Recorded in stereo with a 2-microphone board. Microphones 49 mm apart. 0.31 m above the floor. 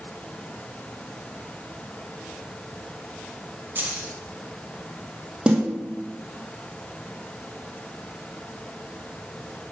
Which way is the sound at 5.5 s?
20° right (ahead or behind).